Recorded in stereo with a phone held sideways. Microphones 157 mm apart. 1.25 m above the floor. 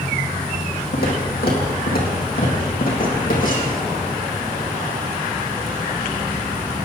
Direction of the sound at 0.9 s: 70° left (ahead or behind).